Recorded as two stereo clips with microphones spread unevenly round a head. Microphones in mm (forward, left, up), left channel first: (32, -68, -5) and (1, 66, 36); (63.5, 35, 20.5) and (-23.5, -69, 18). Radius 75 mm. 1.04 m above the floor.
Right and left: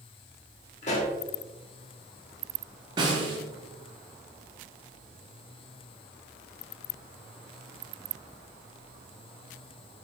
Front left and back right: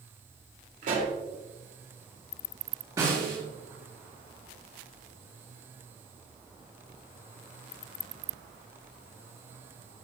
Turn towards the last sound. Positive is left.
turn(degrees=160)